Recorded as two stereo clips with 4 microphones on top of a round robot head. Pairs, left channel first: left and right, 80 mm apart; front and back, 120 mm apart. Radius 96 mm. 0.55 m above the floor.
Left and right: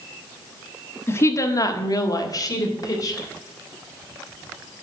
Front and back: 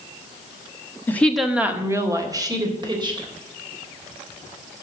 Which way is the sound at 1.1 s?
55° left.